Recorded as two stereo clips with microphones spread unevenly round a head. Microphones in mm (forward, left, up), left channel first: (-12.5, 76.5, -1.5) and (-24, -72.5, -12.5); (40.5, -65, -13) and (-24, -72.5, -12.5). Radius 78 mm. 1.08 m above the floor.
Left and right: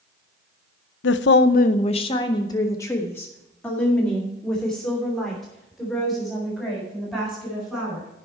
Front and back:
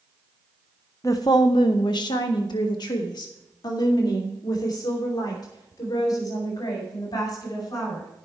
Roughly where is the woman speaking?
Left.